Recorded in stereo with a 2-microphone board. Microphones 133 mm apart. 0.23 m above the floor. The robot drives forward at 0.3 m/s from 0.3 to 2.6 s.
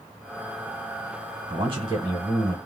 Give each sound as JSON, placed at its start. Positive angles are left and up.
{"t": 1.5, "sound": "a man speaking", "side_deg": -40, "distance_m": 1.4}